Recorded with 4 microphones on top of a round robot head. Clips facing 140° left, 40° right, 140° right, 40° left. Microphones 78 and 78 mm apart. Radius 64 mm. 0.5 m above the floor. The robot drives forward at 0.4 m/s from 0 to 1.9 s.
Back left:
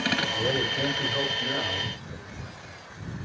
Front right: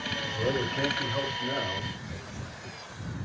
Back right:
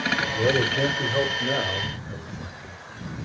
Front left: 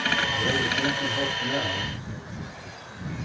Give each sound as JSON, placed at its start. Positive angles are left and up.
{"t": 0.3, "sound": "a man speaking", "azimuth_deg": -115, "distance_m": 1.3}